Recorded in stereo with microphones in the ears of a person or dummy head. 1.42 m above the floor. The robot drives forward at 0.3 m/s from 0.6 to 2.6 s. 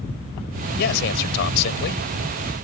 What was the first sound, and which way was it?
A man speaking, 60° left (ahead or behind).